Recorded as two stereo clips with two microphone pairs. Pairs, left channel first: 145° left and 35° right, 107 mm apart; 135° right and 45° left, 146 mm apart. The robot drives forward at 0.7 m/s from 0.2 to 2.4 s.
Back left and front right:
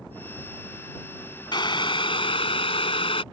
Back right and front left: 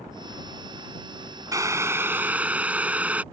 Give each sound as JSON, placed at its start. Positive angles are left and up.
{"t": 1.5, "sound": "boiling", "azimuth_deg": 110}